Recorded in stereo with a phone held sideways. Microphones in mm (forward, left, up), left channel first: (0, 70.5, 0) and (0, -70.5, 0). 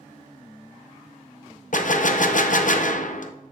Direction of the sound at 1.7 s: 65° left (ahead or behind).